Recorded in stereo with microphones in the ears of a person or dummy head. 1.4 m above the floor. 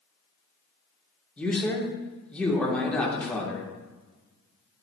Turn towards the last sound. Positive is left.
turn(degrees=10)  # may be behind; listen again after turning